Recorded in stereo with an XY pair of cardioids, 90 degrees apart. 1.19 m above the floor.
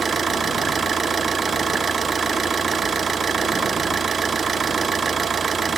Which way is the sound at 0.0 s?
45° right.